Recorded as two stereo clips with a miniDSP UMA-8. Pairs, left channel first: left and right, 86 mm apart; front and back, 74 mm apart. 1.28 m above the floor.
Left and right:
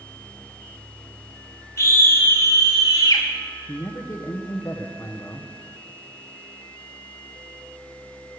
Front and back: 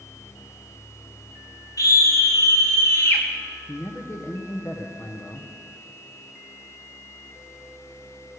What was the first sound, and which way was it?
A scream, 35° left.